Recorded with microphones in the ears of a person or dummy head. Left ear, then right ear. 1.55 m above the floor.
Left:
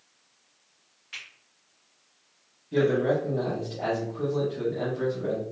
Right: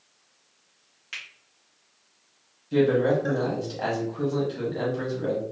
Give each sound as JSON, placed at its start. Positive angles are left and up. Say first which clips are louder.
{"t": 1.1, "sound": "a finger snap", "louder": "right 3 dB", "side_deg": -35, "distance_m": 1.5}
{"t": 2.7, "sound": "a man speaking", "louder": "right 2 dB", "side_deg": -80, "distance_m": 1.1}